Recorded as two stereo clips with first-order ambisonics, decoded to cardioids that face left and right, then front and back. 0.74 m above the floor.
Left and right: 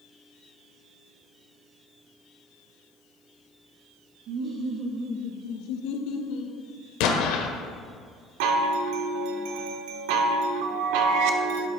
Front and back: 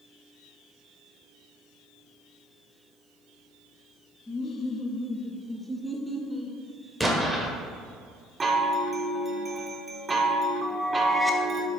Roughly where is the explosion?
Left.